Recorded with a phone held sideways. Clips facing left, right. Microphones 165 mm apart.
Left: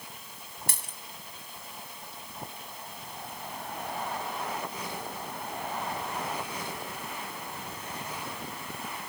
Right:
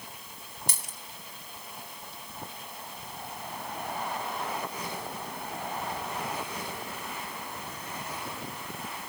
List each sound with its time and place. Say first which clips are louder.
0.7 s a dropped coin: even; 60° left (ahead or behind), 3 m